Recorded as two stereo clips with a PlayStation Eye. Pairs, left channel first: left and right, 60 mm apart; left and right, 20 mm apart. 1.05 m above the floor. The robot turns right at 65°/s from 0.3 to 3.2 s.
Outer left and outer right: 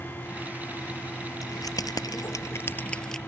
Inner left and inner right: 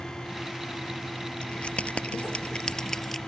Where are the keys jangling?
60° left (ahead or behind); by 3.2 s 5° left (ahead or behind).